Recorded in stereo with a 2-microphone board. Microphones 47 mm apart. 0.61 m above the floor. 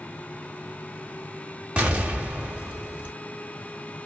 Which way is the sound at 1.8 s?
20° right (ahead or behind).